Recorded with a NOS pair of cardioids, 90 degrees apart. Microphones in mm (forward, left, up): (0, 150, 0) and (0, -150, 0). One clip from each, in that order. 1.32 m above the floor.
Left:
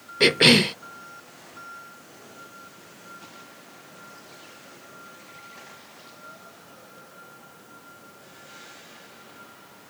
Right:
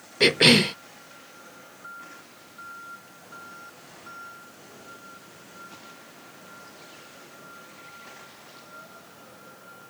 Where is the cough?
5° left.